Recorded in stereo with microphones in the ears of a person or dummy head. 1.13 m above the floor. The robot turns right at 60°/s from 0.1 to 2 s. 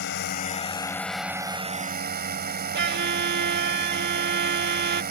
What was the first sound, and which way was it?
A drone, 115° left.